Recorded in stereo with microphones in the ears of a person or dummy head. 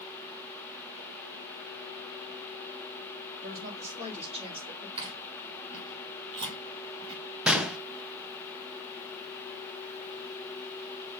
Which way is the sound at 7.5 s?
5° right (ahead or behind).